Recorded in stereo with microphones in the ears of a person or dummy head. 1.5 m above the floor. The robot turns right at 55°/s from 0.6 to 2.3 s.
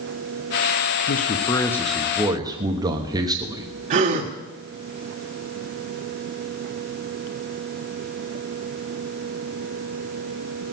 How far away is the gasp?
About 1.4 m.